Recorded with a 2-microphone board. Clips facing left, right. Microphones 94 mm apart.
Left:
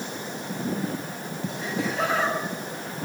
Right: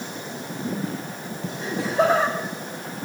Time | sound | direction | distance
1.6 | laughter | 25° right (ahead or behind) | 2 m